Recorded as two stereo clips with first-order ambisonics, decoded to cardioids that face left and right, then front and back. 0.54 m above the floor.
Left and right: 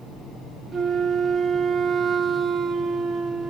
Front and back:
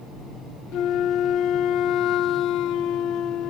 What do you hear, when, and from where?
0.7 s a flute: 25° right, 0.8 m